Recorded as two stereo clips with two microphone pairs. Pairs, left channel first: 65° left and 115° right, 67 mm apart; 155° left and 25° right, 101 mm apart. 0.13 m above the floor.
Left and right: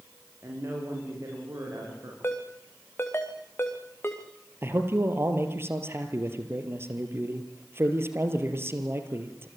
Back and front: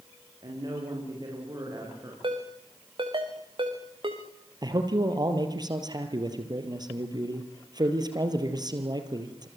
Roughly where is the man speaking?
Right.